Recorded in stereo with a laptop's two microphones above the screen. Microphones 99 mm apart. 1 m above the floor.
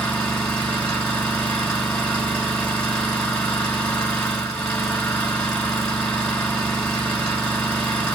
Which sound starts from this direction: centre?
An engine running, at 0.0 s.